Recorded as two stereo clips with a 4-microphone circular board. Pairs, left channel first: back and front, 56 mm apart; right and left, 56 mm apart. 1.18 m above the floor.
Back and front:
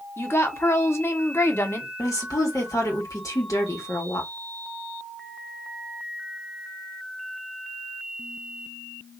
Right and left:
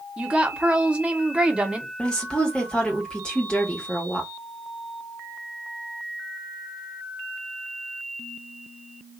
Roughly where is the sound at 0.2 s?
Behind left.